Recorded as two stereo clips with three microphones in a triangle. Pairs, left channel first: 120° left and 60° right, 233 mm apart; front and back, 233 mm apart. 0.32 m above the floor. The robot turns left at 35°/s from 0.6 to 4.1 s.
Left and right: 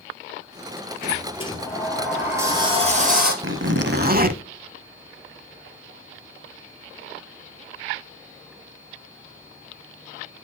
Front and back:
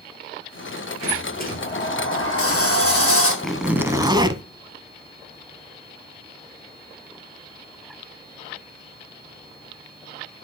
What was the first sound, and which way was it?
A sliding door, 65° left.